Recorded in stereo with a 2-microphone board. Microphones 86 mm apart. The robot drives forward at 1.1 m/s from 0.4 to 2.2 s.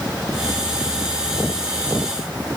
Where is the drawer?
I don't hear a drawer.